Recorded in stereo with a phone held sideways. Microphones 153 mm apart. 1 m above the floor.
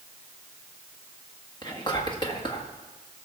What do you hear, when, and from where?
1.6 s whispering: 30° left (ahead or behind), 1.7 m